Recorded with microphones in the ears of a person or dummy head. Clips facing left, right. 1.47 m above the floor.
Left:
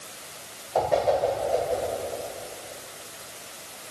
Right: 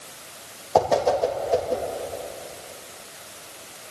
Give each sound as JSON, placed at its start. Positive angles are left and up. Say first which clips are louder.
{"t": 0.8, "sound": "a whoosh", "louder": "right 3 dB", "side_deg": -85, "distance_m": 1.7}